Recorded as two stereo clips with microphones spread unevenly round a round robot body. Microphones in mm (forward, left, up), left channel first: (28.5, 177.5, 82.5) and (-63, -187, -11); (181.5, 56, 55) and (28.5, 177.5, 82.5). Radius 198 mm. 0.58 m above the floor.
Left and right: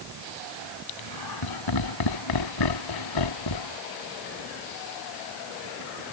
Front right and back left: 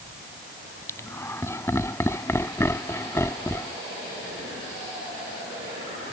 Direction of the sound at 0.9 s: 40° left.